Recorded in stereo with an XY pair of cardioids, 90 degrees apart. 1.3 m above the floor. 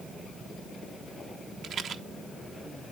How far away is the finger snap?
I don't hear a finger snap.